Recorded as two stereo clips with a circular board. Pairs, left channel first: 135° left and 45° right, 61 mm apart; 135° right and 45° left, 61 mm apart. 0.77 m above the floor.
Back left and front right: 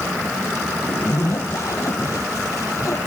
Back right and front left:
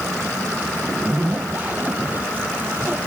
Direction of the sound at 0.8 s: 105° left.